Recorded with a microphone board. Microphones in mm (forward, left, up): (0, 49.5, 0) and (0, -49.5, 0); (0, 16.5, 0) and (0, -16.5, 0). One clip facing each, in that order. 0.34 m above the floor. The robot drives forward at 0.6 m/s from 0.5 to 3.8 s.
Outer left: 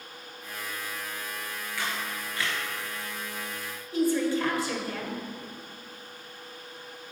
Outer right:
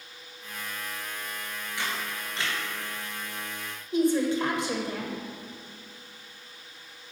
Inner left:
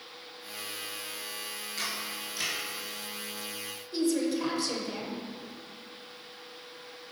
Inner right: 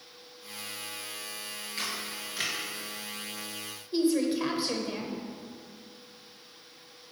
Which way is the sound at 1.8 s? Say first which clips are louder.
Even, even; 20° right (ahead or behind).